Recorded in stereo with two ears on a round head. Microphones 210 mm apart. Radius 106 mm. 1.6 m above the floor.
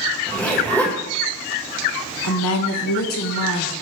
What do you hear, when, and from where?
0.3 s a zipper: 10° left (ahead or behind), 1.7 m
2.2 s a woman speaking: 65° left (ahead or behind), 1.5 m